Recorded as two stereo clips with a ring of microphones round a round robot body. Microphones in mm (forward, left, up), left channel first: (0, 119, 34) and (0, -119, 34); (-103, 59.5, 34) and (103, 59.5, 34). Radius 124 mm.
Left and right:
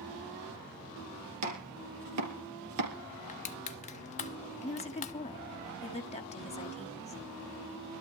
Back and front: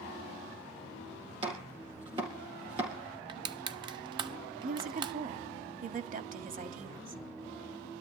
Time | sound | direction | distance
1.4 | chopping | 70° right | 3.5 m
3.3 | crushing | 50° left | 0.5 m
4.6 | a woman speaking | 35° left | 1.5 m